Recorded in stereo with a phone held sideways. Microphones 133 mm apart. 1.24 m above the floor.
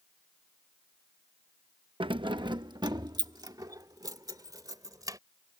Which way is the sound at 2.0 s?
40° right (ahead or behind).